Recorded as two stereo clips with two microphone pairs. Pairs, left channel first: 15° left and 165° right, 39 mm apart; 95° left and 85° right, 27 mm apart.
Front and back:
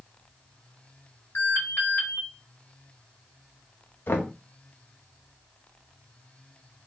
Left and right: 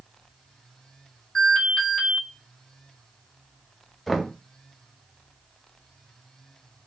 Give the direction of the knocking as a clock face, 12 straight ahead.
12 o'clock.